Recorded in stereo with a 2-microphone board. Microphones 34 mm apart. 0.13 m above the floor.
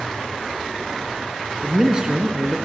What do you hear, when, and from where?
1.6 s a man speaking: 20° right (ahead or behind), 1.8 m